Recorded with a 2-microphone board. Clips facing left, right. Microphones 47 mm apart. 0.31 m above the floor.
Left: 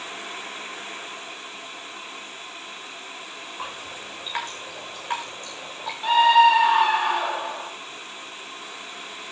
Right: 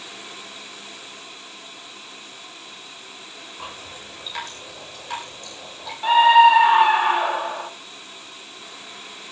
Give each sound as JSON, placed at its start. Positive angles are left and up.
{"t": 3.6, "sound": "dripping", "side_deg": 25, "distance_m": 8.5}
{"t": 6.0, "sound": "a scream", "side_deg": -15, "distance_m": 0.9}